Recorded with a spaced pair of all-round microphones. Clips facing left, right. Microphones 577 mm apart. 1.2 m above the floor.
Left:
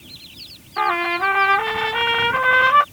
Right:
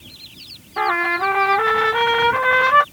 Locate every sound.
0.8 s a trumpet: 65° right (ahead or behind)